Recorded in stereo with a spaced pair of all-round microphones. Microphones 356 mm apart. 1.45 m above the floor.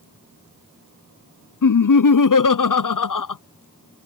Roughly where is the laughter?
Left.